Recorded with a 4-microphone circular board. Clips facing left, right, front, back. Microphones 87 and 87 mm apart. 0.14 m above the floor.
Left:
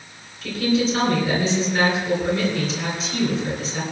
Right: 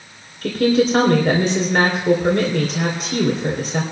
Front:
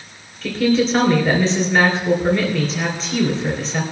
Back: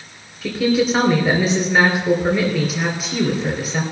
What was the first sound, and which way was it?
A woman speaking, 100° right.